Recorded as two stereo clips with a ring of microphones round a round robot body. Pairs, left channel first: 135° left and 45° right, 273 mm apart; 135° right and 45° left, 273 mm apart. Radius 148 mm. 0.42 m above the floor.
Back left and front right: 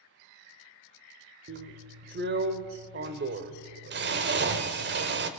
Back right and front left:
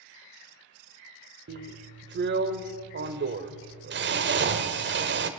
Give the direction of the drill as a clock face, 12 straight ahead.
12 o'clock.